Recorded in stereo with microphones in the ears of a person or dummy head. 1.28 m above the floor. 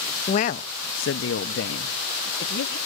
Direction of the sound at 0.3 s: 30° left (ahead or behind).